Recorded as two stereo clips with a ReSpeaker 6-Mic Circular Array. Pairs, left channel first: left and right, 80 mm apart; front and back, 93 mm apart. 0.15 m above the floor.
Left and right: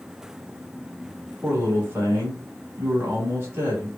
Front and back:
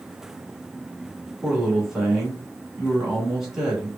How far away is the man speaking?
About 1.3 m.